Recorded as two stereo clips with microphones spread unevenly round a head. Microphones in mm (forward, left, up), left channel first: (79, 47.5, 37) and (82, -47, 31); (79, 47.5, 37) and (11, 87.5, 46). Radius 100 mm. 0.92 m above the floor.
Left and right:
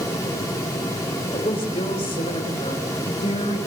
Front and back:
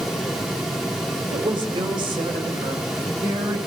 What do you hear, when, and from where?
1.3 s a woman speaking: 135° left, 3.5 m; by 3.6 s 130° left, 4.5 m